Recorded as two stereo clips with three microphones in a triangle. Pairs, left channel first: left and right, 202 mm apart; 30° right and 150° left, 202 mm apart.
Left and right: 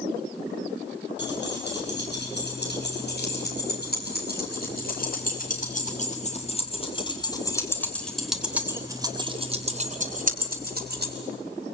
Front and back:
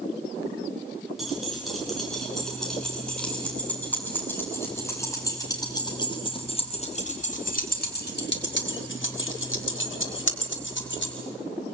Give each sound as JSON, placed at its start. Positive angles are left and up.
{"t": 1.2, "sound": "keys jangling", "azimuth_deg": 60, "distance_m": 10.0}